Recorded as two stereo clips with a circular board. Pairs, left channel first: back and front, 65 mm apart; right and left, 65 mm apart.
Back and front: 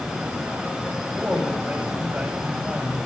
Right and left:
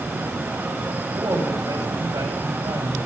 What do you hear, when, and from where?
1.2 s a woman speaking: 70° left, 7.5 m